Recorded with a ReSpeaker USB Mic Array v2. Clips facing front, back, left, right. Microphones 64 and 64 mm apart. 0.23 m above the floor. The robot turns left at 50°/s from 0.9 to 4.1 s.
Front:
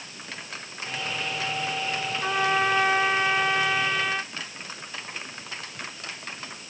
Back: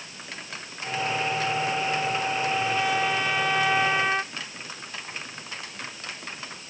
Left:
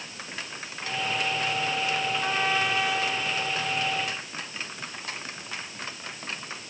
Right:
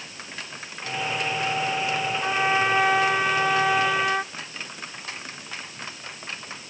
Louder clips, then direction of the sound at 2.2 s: Front 2 dB, right 6 dB; 15° right.